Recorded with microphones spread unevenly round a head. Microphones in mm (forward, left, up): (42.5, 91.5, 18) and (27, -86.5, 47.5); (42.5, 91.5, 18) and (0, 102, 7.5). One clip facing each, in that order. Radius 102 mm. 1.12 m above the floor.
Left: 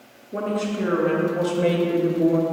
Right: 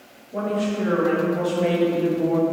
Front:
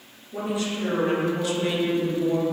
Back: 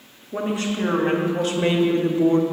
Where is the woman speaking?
125° left, 2.5 m; by 2.4 s 135° left, 1.1 m.